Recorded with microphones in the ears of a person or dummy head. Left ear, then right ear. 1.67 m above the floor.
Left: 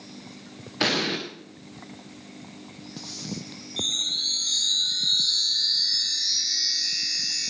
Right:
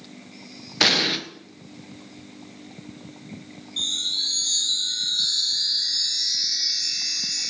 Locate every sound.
0.8 s an explosion: 20° right (ahead or behind), 1.7 m
3.8 s a chime: 5° right (ahead or behind), 3.5 m